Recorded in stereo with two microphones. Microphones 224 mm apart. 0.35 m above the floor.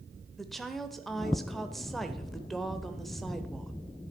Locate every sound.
0.4 s a woman speaking: centre (ahead or behind), 0.9 m